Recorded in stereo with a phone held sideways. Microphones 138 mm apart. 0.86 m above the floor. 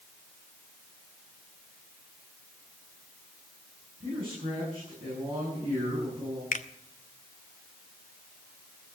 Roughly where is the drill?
I don't hear a drill.